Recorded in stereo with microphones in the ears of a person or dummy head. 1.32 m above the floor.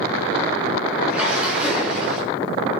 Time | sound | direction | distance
1.1 | a splash | 10° right (ahead or behind) | 6.5 m